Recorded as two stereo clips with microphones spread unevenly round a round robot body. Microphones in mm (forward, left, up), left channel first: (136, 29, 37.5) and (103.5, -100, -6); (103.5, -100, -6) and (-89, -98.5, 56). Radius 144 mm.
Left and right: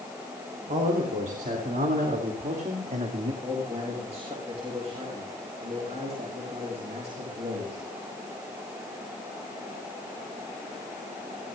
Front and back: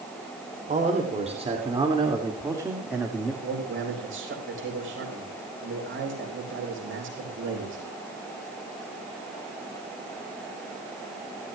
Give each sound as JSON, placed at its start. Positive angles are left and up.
{"t": 0.7, "sound": "a man speaking", "azimuth_deg": -125, "distance_m": 3.0}
{"t": 3.4, "sound": "a man speaking", "azimuth_deg": -160, "distance_m": 4.0}